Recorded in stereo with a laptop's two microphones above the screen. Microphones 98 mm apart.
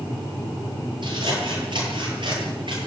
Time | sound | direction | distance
1.0 | scissors | 55° right (ahead or behind) | 9 m